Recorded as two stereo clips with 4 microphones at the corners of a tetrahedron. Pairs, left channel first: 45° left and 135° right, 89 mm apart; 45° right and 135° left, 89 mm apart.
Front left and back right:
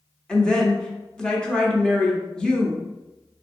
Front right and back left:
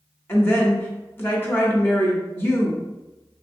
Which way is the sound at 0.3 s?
30° right.